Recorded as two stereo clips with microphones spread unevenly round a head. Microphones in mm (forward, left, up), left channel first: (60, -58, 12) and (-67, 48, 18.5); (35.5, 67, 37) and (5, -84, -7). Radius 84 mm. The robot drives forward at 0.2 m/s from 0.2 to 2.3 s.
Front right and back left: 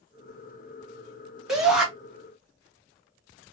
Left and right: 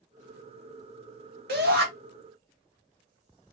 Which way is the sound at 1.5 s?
130° right.